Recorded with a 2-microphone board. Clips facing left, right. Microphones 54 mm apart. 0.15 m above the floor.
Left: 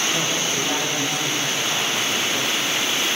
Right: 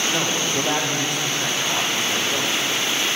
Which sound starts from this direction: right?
A man speaking, at 0.1 s.